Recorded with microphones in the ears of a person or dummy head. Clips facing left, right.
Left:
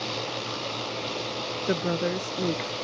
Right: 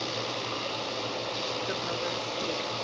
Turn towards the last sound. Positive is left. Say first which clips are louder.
# left 7 dB
turn(degrees=55)  # may be behind; listen again after turning